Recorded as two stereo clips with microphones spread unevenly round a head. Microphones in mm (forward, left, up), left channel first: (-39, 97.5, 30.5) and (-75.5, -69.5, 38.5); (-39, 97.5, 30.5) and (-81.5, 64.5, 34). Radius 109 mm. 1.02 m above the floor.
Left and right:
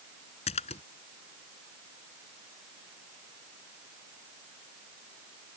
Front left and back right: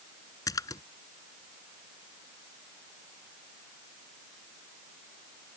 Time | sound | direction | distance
0.5 | a splash | 15° left | ?